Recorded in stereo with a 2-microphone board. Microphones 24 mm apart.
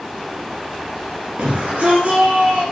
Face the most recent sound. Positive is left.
turn(degrees=-65)  # may be behind; listen again after turning